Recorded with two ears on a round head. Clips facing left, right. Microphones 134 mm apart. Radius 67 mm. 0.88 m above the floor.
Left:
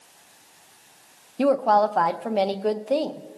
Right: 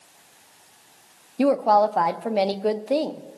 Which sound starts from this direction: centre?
A woman speaking, at 1.4 s.